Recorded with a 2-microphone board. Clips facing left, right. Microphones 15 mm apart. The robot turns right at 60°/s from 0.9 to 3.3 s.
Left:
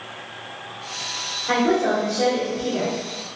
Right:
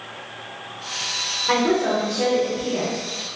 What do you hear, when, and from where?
1.5 s a woman speaking: 35° right, 1.2 m; by 3.0 s 55° left, 1.2 m